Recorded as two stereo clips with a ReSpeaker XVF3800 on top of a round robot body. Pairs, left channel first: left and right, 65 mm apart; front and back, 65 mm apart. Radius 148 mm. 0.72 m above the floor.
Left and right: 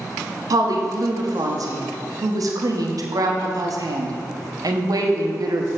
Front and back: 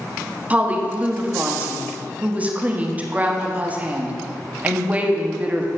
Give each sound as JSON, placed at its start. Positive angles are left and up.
{"t": 0.5, "sound": "a woman speaking", "azimuth_deg": -110, "distance_m": 1.2}